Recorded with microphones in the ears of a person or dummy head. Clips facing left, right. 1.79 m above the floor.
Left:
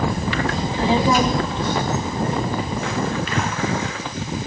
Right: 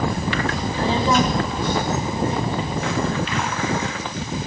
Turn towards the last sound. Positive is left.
turn(degrees=45)  # may be behind; listen again after turning